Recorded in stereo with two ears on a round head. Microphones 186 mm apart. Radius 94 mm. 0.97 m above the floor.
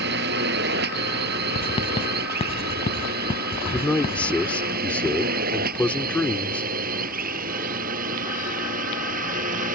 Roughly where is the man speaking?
Centre.